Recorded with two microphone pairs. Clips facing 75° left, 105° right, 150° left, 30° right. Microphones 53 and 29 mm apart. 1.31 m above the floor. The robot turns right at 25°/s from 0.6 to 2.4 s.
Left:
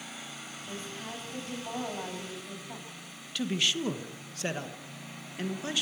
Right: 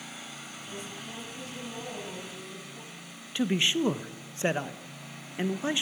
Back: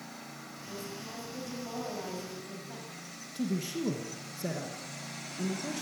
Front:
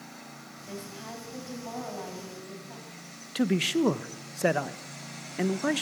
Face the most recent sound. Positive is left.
turn(degrees=-40)